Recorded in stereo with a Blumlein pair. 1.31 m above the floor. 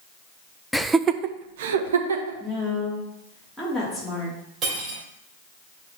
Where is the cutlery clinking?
25° right, 3 m.